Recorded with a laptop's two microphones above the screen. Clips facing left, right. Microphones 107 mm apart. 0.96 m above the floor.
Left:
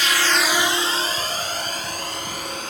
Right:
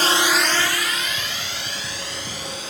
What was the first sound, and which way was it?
A drone, 45° right (ahead or behind).